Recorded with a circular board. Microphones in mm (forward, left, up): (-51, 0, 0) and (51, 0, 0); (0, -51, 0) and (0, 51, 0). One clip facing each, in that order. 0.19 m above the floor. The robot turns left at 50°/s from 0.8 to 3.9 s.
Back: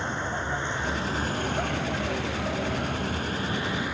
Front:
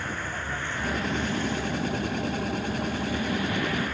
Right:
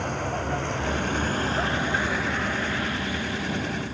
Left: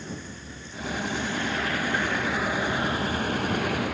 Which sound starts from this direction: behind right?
A vehicle, at 0.0 s.